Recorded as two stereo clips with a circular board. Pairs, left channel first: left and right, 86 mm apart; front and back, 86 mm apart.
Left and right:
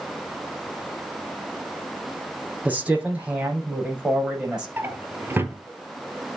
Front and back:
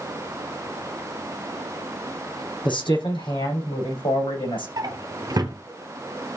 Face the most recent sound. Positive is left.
turn(degrees=-150)